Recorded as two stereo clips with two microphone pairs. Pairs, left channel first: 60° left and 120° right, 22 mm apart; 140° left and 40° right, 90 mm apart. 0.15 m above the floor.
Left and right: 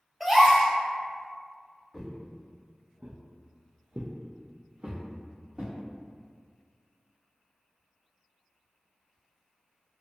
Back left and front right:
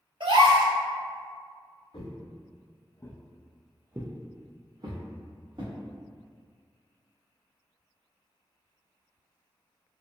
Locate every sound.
0.2 s a gasp: 30° right, 0.6 m
1.9 s footsteps: 160° left, 1.0 m; by 5.8 s 70° right, 1.7 m